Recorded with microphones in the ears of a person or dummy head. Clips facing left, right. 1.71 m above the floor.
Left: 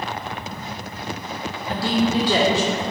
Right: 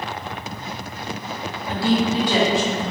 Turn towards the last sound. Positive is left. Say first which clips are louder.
# right 1 dB
turn(degrees=25)  # may be behind; listen again after turning